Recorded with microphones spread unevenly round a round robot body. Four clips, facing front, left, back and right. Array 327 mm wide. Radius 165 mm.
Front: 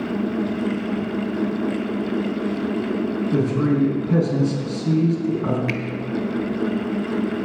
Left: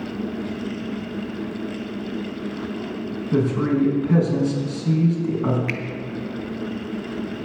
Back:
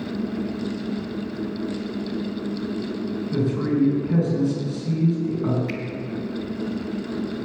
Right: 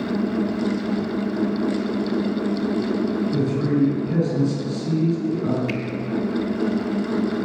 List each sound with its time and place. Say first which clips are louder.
3.3 s a man speaking: left 1 dB, front 2 dB; 70° left, 5.5 m
5.7 s a finger snap: right 3 dB, front 4 dB; 25° left, 1.6 m